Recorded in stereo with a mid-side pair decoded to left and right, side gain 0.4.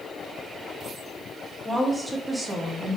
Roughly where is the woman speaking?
Ahead.